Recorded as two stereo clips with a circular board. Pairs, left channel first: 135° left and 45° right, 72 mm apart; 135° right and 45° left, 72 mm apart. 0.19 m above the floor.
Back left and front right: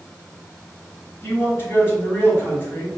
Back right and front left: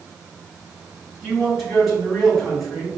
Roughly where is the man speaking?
Behind left.